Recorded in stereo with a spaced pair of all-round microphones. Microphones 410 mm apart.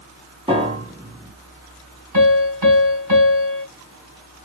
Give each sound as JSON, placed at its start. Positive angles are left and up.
{"t": 0.5, "sound": "a piano", "side_deg": -15, "distance_m": 1.2}
{"t": 2.1, "sound": "a piano", "side_deg": -50, "distance_m": 3.0}